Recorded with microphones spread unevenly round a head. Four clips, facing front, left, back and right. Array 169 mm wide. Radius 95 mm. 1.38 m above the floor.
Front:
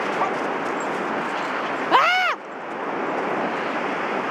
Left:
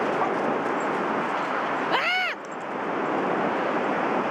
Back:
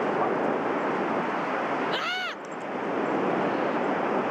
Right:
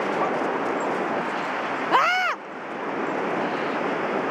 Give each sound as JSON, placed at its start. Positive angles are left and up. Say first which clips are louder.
{"t": 1.9, "sound": "a scream", "louder": "right 5 dB, front 12 dB", "azimuth_deg": -10}